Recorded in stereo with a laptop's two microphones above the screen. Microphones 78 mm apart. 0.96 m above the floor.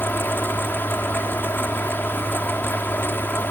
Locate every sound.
0.0 s a fan: 25° left (ahead or behind)